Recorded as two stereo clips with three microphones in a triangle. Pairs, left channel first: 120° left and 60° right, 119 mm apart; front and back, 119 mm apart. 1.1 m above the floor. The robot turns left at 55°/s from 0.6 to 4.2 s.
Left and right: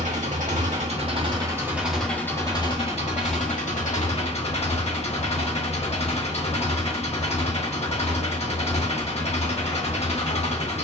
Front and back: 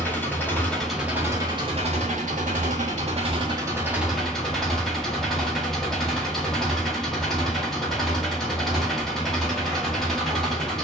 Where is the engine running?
75° right, 2 m; by 10.8 s 85° left, 2 m.